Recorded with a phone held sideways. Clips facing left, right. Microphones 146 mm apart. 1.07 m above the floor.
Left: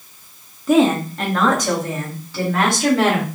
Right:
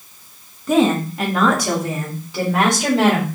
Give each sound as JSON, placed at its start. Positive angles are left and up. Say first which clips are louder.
{"t": 0.7, "sound": "a woman speaking", "louder": "left 1 dB", "side_deg": 5, "distance_m": 1.1}